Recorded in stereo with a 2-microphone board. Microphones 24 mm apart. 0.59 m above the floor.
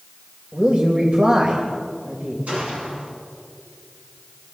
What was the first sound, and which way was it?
A man speaking, 55° right (ahead or behind).